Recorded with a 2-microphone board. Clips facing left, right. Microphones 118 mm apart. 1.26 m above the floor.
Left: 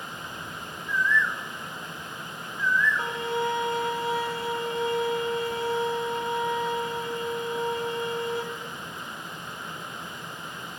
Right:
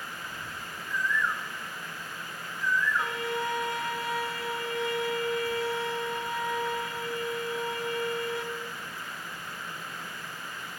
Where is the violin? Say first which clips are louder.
Left 3 dB; 30° left (ahead or behind), 1.3 m.